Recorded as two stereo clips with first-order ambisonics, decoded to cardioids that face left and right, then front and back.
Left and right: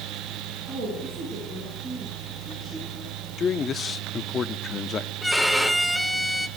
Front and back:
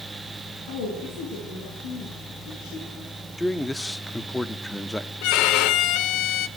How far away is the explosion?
I don't hear an explosion.